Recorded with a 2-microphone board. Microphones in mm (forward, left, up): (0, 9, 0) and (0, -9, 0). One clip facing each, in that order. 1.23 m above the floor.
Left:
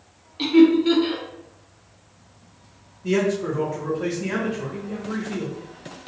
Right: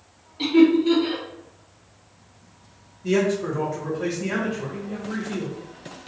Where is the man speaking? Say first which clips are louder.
Even; 5° right (ahead or behind), 1.6 m.